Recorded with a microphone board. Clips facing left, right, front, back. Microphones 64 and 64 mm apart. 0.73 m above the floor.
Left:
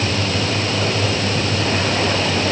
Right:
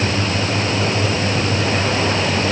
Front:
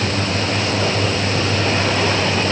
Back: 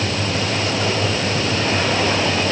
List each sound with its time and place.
Only background noise.